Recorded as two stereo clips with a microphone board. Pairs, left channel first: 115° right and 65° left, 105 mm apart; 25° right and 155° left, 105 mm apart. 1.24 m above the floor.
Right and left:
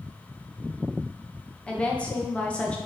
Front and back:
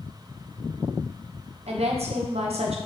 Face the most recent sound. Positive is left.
turn(degrees=170)